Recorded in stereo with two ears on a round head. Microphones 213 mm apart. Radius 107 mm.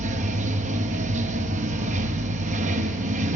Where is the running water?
30° right (ahead or behind), 0.7 m.